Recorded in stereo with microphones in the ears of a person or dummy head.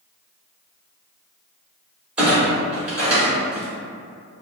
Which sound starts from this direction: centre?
A clunk, at 2.2 s.